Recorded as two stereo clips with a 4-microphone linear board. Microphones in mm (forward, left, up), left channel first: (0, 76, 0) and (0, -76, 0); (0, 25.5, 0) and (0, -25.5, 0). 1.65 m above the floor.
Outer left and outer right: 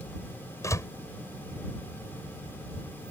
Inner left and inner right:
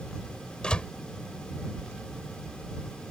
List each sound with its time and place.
0.6 s a door slam: 20° left (ahead or behind)